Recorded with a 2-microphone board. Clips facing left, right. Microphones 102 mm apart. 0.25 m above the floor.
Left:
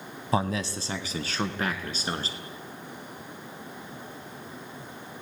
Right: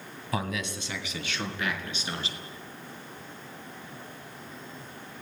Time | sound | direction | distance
0.3 | a man speaking | 30° left (ahead or behind) | 1.4 m